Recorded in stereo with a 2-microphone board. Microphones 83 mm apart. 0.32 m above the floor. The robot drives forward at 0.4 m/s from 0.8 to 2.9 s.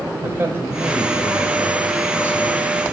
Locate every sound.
0.2 s a man speaking: 25° right (ahead or behind), 1.3 m; by 2.7 s 20° right (ahead or behind), 1.6 m